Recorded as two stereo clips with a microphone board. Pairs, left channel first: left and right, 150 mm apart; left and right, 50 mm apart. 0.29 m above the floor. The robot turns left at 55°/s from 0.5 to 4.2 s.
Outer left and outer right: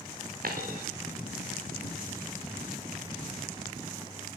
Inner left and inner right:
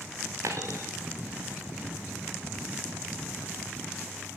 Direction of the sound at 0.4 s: 70° right (ahead or behind).